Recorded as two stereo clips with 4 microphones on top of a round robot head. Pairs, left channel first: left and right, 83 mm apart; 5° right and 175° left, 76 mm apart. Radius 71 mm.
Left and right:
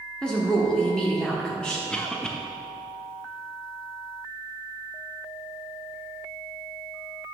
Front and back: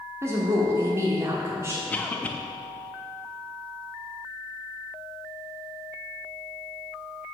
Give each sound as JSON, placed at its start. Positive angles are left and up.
{"t": 0.2, "sound": "a woman speaking", "azimuth_deg": 165, "distance_m": 1.3}
{"t": 1.9, "sound": "a cough", "azimuth_deg": 25, "distance_m": 0.8}